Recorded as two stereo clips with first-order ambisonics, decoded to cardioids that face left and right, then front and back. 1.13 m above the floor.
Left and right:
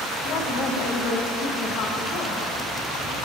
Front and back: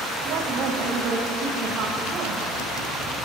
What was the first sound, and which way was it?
A woman speaking, 135° left.